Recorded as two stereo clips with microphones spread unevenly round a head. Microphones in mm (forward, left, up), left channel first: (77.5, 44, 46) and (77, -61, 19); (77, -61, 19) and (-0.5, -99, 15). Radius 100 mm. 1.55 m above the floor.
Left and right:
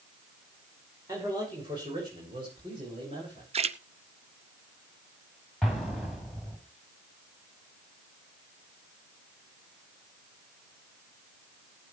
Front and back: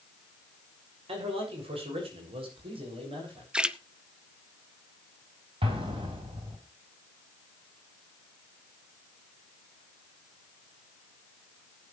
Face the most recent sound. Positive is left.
turn(degrees=170)